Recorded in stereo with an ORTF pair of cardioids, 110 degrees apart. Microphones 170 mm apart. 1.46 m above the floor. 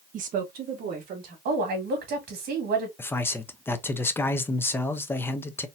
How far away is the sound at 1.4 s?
About 2.5 m.